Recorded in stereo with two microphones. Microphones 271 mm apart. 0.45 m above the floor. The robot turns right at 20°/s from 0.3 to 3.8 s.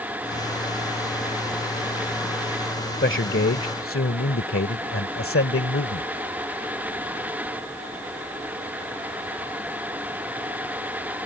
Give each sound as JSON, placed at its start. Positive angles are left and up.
{"t": 3.0, "sound": "a man speaking", "side_deg": 45}